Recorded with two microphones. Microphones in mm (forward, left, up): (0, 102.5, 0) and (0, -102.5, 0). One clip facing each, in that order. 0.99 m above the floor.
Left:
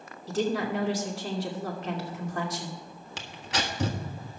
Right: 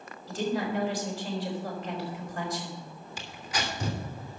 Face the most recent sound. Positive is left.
turn(degrees=75)  # may be behind; listen again after turning